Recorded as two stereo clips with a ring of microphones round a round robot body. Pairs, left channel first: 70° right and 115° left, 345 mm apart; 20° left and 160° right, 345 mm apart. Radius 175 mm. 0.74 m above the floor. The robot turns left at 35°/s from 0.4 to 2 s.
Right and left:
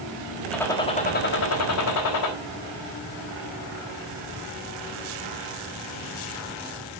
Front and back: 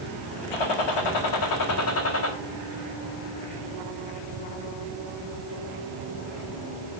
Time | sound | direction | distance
0.5 | a gunshot | 20° left | 4 m